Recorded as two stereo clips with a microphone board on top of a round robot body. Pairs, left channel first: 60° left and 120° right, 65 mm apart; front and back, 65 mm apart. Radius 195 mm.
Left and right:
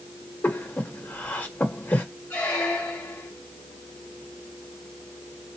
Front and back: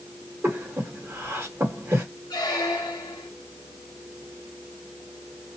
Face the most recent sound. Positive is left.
turn(degrees=-5)